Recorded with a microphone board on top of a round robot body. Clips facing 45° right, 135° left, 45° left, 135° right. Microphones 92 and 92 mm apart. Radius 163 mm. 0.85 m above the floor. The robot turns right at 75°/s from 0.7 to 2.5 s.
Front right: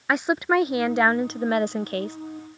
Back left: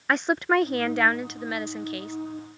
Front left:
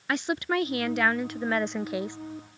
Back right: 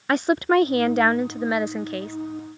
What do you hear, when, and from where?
0.1 s a woman speaking: 125° right; by 2.2 s 15° right